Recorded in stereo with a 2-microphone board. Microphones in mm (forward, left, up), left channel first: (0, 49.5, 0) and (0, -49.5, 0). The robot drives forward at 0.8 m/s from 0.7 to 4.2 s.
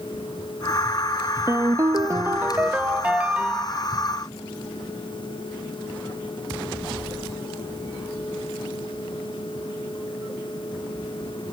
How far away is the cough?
I don't hear a cough.